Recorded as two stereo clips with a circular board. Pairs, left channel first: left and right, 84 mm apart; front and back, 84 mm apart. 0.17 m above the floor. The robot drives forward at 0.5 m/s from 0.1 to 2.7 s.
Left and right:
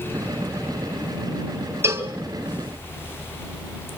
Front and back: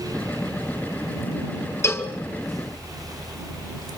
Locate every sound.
1.8 s a cowbell: 45° right, 1.9 m; by 2.1 s 50° right, 1.9 m